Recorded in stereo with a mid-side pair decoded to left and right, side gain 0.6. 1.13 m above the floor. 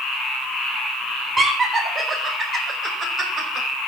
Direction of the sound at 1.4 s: 25° right.